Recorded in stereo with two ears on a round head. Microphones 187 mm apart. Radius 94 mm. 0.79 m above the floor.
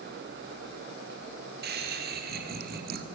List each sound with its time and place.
1.6 s laughter: 50° right (ahead or behind), 3 m; by 3.0 s 45° right (ahead or behind), 1.8 m